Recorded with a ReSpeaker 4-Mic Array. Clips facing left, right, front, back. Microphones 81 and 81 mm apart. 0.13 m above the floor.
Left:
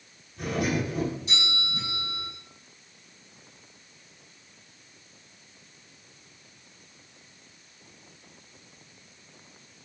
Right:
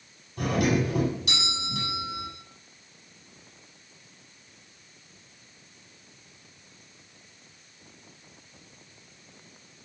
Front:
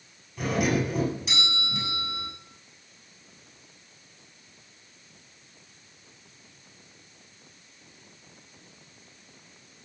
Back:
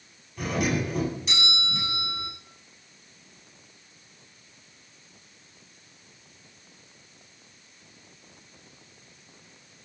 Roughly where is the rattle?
No rattle in this recording.